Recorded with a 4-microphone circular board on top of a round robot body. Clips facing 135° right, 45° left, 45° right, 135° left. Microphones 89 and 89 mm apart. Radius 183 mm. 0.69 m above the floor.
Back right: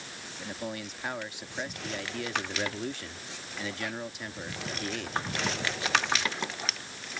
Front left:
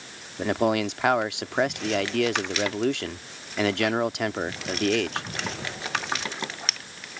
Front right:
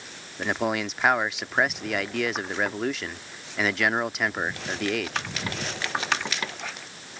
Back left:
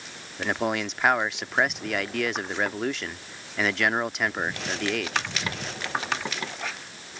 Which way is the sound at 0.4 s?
45° left.